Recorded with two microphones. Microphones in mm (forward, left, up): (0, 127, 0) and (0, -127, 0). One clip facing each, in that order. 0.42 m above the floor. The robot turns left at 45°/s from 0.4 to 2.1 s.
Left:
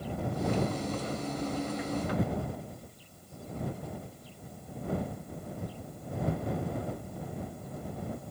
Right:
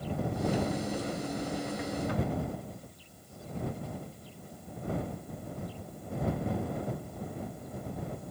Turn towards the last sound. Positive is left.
No sound to turn to.